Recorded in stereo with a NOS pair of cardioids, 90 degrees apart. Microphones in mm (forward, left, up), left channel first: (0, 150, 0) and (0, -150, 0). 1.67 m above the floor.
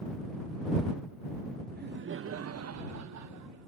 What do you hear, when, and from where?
1.7 s laughter: 30° right; by 3.7 s 65° right